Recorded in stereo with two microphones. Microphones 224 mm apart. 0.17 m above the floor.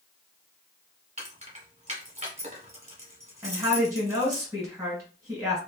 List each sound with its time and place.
1.2 s keys jangling: 30° right (ahead or behind), 1.2 m
3.4 s a woman speaking: 15° right (ahead or behind), 1.8 m